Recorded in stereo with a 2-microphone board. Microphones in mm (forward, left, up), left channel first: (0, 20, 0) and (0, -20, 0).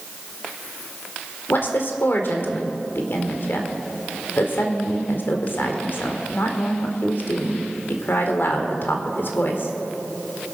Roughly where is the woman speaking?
Left.